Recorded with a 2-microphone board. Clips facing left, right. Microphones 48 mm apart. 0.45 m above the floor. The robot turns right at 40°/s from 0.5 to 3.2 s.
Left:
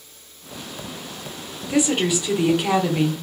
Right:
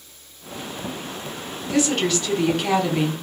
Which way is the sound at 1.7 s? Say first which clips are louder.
Left 1 dB; 15° left (ahead or behind).